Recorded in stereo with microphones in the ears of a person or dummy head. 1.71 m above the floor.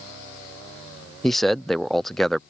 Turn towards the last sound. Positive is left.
turn(degrees=-5)  # may be behind; listen again after turning